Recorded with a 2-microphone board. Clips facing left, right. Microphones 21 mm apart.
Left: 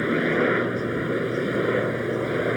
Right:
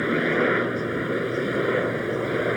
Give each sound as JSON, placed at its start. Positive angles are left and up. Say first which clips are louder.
{"t": 0.0, "sound": "a helicopter", "louder": "even", "side_deg": -5}